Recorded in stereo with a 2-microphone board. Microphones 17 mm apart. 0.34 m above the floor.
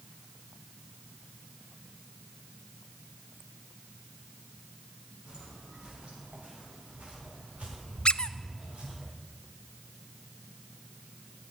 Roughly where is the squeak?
Left.